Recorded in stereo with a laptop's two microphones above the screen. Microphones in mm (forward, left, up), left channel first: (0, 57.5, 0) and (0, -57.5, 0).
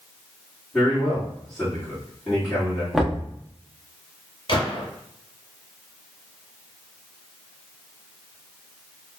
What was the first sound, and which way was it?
A man speaking, 5° left (ahead or behind).